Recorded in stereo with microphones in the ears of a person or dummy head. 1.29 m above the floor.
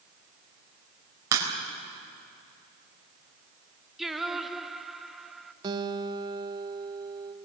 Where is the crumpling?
I don't hear crumpling.